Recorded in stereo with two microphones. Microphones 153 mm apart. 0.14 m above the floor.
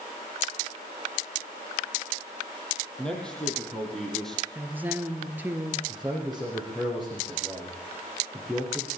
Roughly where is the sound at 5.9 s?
Centre.